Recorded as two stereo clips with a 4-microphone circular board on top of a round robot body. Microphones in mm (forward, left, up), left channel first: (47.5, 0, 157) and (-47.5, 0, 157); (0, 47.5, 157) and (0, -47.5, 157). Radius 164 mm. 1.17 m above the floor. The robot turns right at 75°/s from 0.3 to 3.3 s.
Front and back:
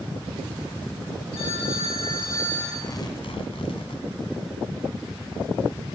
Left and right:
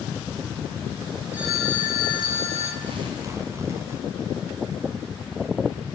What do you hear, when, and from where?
1.3 s a phone ringing: 15° right, 7.5 m; by 2.7 s 85° left, 7.5 m
2.8 s tearing paper: 65° right, 2.5 m; by 4.0 s 30° right, 2.5 m